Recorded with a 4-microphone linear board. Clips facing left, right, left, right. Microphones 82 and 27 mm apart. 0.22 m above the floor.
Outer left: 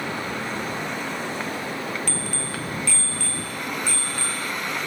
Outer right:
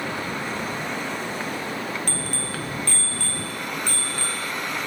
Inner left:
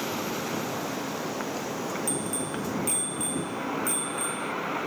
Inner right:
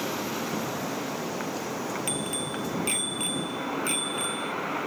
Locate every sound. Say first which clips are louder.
2.1 s a bicycle bell: even, even; 45° right (ahead or behind)